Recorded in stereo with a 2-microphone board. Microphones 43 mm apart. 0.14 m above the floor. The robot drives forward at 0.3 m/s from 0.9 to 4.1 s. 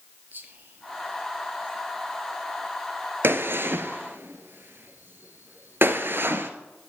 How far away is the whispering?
About 2.5 m.